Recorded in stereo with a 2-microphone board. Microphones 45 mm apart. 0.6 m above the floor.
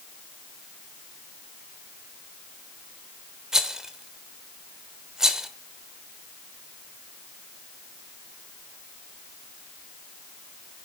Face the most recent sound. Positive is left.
turn(degrees=-10)  # may be behind; listen again after turning